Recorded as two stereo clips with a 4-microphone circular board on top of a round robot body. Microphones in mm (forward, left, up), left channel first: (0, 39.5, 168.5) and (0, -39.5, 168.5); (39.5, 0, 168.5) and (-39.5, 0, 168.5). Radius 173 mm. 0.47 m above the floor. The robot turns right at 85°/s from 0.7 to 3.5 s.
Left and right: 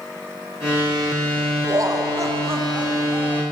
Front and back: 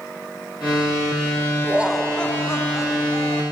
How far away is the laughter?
About 1.8 m.